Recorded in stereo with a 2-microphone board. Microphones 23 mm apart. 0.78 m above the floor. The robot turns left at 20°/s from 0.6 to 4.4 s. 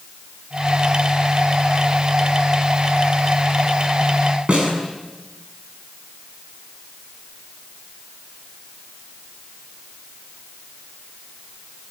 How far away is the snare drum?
About 6.5 m.